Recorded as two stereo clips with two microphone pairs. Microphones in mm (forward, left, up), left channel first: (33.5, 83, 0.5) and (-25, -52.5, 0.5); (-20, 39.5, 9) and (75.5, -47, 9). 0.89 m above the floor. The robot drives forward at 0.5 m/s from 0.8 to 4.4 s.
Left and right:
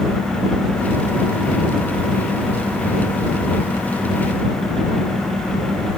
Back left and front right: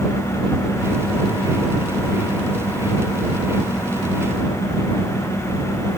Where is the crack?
No crack in this recording.